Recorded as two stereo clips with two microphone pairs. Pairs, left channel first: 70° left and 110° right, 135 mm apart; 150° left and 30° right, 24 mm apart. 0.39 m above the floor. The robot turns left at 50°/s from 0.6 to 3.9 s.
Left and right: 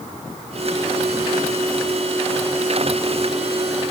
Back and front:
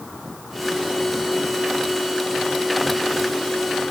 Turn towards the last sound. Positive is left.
No sound to turn to.